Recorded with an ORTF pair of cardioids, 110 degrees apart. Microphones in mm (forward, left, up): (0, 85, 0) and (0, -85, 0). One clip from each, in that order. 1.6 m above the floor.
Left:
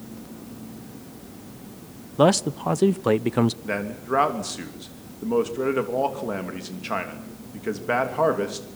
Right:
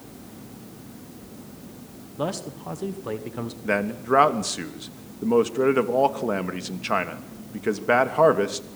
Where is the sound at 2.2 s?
50° left, 1.1 m.